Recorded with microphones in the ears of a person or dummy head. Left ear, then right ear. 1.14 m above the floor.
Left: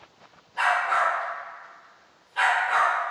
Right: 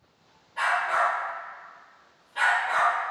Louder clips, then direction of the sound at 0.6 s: Left 2 dB; 20° right (ahead or behind).